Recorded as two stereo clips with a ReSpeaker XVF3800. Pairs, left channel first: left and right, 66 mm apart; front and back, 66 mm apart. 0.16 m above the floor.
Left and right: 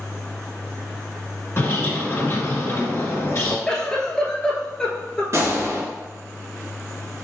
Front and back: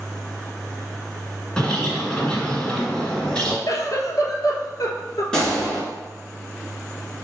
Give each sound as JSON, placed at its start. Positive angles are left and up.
{"t": 1.6, "sound": "a bird", "azimuth_deg": 70, "distance_m": 1.5}
{"t": 3.7, "sound": "a giggle", "azimuth_deg": 15, "distance_m": 0.9}
{"t": 5.3, "sound": "a gunshot", "azimuth_deg": -75, "distance_m": 1.9}